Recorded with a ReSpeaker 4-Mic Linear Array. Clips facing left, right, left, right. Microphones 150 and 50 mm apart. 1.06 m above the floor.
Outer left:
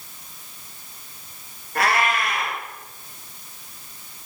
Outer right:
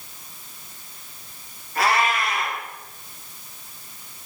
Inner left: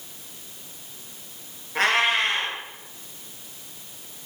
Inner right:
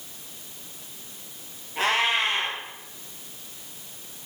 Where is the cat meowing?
55° left (ahead or behind), 3.5 m.